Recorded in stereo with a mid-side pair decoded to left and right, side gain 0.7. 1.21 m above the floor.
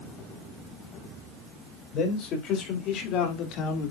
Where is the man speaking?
50° left, 5.5 m; by 3.9 s 60° left, 3.5 m.